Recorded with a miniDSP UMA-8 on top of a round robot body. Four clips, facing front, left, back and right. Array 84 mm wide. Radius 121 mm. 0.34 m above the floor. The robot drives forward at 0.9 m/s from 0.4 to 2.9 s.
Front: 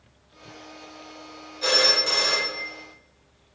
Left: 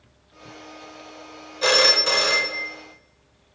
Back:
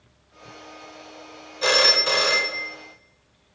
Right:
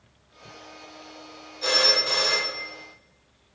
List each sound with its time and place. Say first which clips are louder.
1.6 s a phone ringing: left 5 dB, back 3 dB; 120° left, 1.1 m; by 2.7 s 150° left, 1.7 m